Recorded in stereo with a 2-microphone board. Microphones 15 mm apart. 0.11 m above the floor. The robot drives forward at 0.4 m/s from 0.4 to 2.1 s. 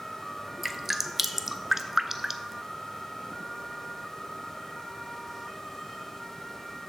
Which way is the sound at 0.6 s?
15° right (ahead or behind).